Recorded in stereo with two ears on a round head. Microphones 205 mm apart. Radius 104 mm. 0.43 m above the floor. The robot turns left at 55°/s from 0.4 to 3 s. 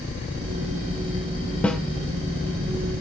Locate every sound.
1.6 s a snare drum: 5° left (ahead or behind), 1.0 m; by 1.8 s centre (ahead or behind), 1.0 m